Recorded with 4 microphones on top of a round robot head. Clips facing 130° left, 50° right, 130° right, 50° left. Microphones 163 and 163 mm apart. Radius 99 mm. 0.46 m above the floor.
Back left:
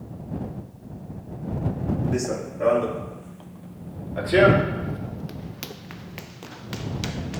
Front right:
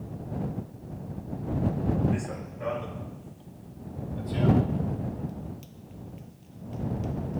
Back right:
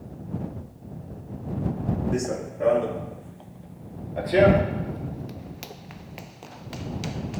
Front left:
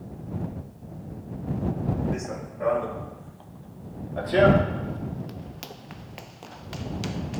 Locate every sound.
2.1 s running footsteps: 175° left; by 7.4 s 140° left